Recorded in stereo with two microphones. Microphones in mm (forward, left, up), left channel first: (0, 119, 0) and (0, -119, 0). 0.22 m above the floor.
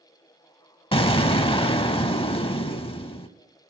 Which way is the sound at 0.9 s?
20° left (ahead or behind).